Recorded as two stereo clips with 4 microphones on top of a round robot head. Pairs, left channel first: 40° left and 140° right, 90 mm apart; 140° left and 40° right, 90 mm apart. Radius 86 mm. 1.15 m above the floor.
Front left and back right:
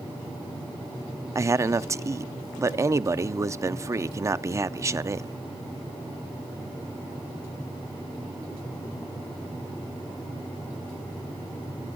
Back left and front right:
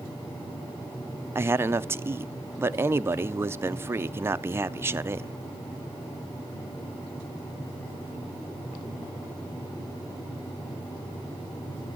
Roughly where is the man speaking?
Right.